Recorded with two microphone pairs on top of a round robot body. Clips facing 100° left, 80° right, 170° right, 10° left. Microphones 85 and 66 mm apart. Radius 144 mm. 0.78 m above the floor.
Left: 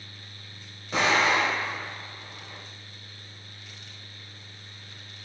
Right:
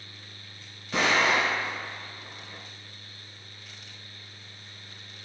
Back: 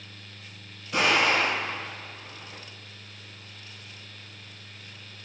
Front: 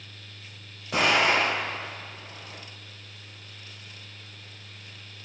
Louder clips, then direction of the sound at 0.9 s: Left 1 dB, front 1 dB; 25° left.